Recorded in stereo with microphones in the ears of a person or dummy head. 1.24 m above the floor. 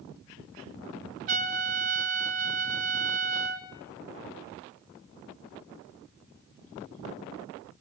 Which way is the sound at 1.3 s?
35° right (ahead or behind).